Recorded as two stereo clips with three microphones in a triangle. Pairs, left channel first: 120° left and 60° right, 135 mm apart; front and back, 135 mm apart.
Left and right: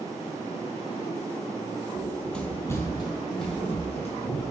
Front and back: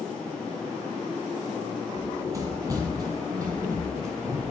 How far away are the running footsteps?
About 1.3 m.